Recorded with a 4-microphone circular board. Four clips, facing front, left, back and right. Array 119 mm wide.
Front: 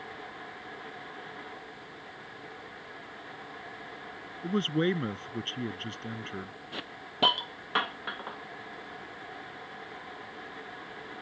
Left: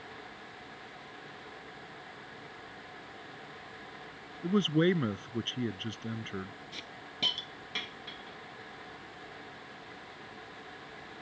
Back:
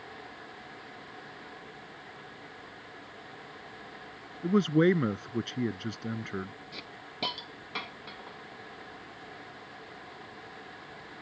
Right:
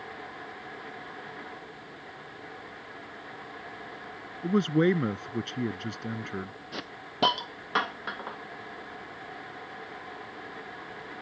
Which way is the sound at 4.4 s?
145° right.